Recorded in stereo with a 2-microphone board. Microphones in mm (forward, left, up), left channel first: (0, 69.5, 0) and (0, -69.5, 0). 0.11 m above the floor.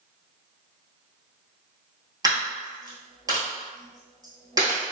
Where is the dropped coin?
30° right (ahead or behind), 1.0 m.